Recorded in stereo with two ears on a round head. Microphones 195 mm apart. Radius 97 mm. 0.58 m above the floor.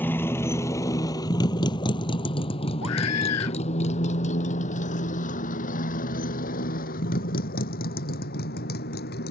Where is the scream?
85° left.